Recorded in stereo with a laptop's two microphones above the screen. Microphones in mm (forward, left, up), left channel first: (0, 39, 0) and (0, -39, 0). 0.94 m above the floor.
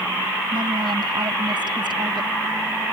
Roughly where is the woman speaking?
Right.